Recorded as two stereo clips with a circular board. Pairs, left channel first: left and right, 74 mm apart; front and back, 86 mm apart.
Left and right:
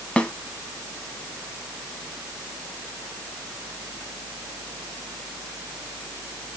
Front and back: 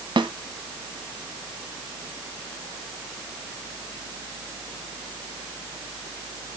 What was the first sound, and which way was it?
A snare drum, 165° left.